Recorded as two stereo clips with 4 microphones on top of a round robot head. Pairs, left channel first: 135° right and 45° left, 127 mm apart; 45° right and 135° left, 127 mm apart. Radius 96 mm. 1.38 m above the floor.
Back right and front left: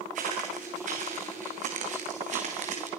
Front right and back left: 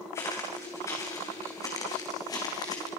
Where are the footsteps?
25° left, 5.5 m; by 2.9 s 15° left, 4 m.